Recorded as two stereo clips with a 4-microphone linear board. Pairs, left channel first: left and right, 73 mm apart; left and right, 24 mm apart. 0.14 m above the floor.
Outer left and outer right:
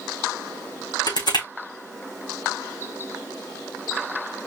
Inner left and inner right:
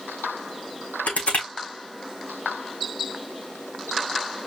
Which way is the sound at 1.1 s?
80° left.